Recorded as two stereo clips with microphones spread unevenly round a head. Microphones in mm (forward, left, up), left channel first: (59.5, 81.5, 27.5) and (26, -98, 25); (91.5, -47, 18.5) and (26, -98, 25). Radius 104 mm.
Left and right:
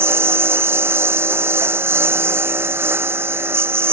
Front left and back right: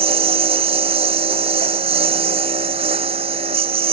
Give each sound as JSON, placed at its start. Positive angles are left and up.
{"t": 0.0, "sound": "a lawn mower", "azimuth_deg": 180}